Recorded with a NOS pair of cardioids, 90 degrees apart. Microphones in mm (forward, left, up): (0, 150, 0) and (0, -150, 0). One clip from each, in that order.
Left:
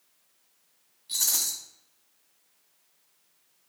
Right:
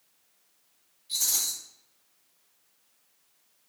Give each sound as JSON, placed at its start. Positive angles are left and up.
{"t": 1.1, "sound": "a rattle", "azimuth_deg": 40, "distance_m": 1.6}